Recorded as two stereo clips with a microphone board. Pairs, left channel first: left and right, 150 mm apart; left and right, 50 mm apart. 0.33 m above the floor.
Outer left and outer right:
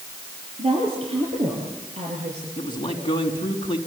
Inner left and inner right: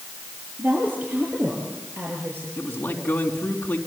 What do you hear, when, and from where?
0.6 s a woman speaking: 40° right (ahead or behind), 7 m; by 2.5 s 50° right (ahead or behind), 6.5 m
2.6 s a man speaking: 30° left (ahead or behind), 4 m